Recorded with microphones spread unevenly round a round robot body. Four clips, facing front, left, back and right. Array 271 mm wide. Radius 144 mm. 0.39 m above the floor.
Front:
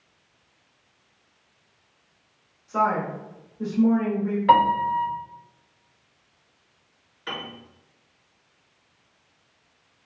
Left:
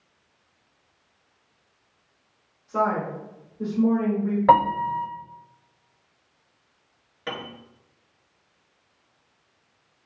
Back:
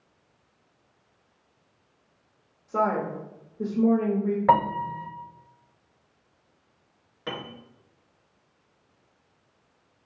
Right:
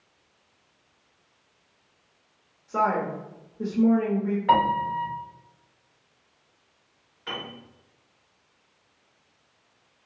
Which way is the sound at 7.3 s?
140° left.